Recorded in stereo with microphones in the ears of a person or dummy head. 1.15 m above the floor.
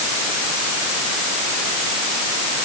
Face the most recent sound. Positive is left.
No sound to turn to.